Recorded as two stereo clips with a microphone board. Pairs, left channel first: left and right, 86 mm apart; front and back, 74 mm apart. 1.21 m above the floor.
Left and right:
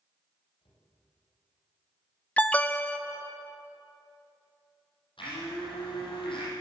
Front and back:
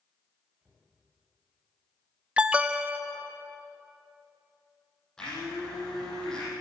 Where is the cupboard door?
105° left, 8.5 m.